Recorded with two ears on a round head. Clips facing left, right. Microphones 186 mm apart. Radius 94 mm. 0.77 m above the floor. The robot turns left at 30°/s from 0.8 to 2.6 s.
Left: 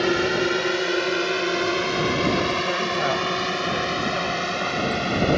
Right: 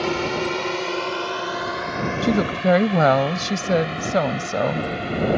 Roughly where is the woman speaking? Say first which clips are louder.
Right 4 dB; right.